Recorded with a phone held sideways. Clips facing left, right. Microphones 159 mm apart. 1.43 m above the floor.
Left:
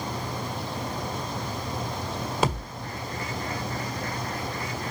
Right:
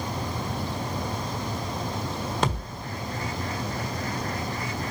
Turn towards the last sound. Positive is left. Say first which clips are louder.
# left 4 dB
turn(degrees=5)  # may be behind; listen again after turning